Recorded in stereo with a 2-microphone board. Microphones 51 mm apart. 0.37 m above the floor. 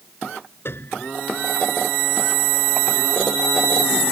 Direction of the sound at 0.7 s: 50° left (ahead or behind).